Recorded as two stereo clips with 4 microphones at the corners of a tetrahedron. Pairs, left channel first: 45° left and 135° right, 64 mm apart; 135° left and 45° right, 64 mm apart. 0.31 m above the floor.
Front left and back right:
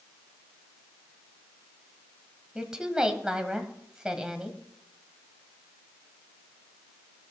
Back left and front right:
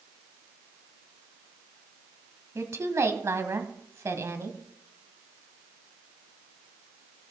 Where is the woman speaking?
60° right, 1.7 m.